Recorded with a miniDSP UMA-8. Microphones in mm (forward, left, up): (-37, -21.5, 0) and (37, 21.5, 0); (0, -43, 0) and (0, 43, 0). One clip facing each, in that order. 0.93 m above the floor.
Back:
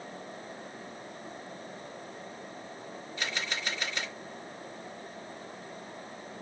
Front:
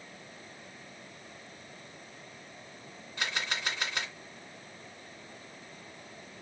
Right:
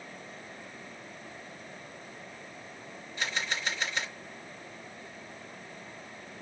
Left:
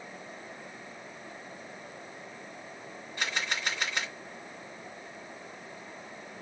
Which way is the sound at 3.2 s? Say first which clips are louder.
Front 1 dB, left 1 dB; 55° left.